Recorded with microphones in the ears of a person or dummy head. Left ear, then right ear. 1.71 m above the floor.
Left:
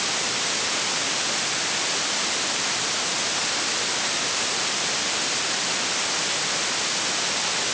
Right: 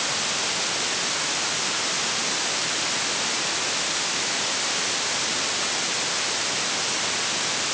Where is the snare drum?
No snare drum in this recording.